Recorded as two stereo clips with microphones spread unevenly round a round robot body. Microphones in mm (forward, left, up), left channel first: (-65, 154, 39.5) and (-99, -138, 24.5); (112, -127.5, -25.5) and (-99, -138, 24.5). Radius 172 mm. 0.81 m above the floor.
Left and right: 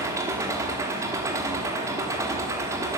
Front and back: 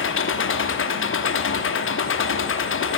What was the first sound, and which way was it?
An engine running, 15° right.